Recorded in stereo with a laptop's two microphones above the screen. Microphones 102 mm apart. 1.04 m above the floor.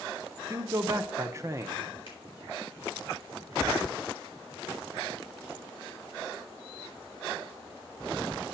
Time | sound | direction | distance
0.5 | a man speaking | 30° right (ahead or behind) | 0.8 m
2.1 | a finger snap | 55° left (ahead or behind) | 5 m